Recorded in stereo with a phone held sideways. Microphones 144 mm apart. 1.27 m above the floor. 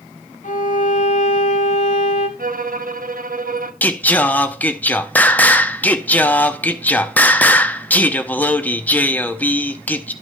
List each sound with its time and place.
0.4 s a violin: 60° left (ahead or behind), 1.5 m
2.4 s a violin: 85° right, 0.8 m
3.8 s singing: 10° left (ahead or behind), 0.7 m